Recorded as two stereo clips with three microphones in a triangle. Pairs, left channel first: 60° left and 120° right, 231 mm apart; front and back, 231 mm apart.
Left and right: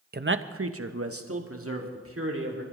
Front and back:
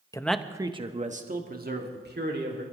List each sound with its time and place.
0.1 s a man speaking: 70° right, 0.7 m; by 2.6 s 140° right, 3 m